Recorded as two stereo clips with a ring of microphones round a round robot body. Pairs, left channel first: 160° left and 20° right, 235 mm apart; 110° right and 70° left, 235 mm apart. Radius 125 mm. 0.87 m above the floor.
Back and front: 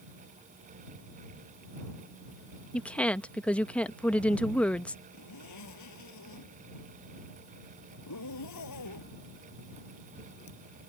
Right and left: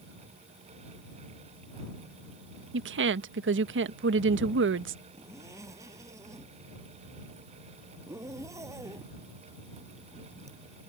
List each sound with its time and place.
2.7 s a woman speaking: 75° left
5.1 s a zipper: 145° left